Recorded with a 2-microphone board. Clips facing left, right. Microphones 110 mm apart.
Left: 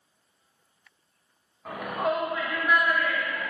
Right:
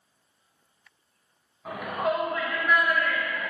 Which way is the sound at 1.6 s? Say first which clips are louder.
Even; 5° right (ahead or behind).